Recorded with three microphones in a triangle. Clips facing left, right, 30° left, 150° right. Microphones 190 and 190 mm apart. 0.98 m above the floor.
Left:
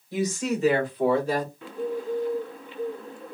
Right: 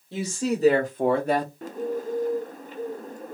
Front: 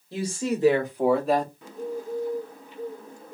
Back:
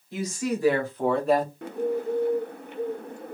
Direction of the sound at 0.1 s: 30° right.